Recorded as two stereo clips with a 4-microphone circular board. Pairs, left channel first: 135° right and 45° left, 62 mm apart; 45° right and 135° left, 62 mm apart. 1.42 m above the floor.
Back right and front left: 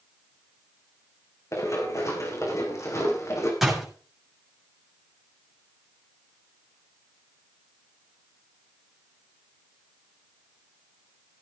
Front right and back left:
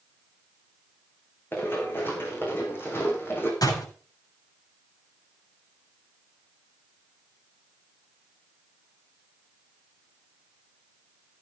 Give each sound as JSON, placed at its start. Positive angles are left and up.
{"t": 1.5, "sound": "running footsteps", "azimuth_deg": -100, "distance_m": 6.5}
{"t": 3.6, "sound": "a door slam", "azimuth_deg": -40, "distance_m": 7.0}